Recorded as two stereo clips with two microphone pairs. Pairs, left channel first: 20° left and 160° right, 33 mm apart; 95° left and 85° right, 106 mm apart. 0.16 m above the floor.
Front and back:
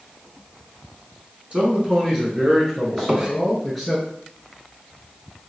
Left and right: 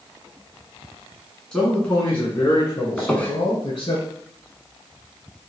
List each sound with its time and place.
1.5 s a man speaking: 175° left, 1.4 m; by 4.0 s 120° left, 2 m
3.0 s a squeak: 155° left, 0.8 m